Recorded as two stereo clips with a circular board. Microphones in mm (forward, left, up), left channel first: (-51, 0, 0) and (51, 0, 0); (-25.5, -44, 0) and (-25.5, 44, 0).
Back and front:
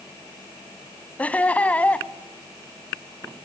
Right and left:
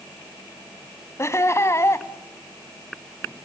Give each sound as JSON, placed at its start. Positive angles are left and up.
{"t": 1.2, "sound": "laughter", "azimuth_deg": -115, "distance_m": 1.3}